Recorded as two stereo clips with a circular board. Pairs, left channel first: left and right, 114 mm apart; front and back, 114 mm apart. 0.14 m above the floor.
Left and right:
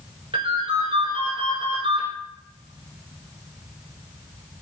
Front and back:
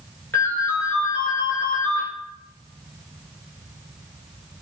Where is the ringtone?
70° right, 1.4 m.